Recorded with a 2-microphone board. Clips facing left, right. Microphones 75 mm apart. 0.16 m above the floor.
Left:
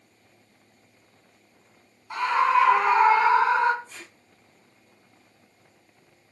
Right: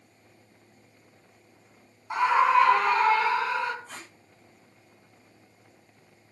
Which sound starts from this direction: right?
Tape being pulled, at 3.9 s.